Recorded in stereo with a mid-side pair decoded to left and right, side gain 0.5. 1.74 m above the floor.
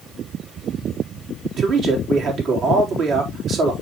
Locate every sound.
1.6 s a man speaking: 60° right, 4 m